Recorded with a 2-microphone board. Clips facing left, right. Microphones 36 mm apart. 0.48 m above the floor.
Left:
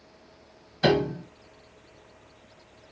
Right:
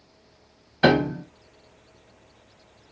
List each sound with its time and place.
0.8 s a piano: 40° right (ahead or behind), 0.7 m